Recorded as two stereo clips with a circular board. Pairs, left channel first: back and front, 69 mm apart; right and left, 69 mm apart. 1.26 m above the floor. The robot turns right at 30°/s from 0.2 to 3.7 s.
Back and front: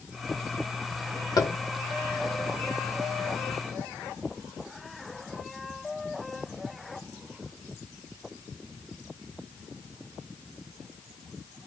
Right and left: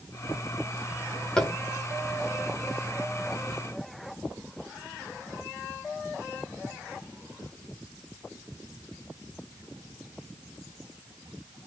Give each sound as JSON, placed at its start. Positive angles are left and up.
{"t": 1.4, "sound": "tapping", "azimuth_deg": -170, "distance_m": 1.4}